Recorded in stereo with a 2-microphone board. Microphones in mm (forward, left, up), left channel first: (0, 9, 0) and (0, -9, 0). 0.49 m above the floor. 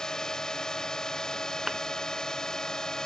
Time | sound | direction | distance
0.0 | a drone | 40° left (ahead or behind) | ?
1.7 | a thud | 30° right (ahead or behind) | ?